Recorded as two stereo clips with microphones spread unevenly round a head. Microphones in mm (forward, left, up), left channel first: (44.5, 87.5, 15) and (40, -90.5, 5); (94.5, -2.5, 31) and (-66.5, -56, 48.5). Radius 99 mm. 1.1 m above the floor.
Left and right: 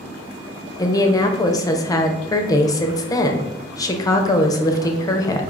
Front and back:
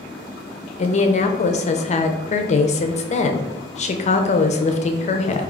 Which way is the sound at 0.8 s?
25° left.